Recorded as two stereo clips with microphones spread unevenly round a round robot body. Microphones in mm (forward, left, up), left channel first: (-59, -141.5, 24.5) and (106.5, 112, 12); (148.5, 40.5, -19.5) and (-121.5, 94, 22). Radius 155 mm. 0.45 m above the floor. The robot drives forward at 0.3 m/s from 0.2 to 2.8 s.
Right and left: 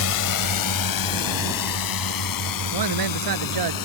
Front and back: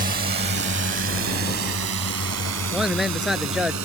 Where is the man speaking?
80° left.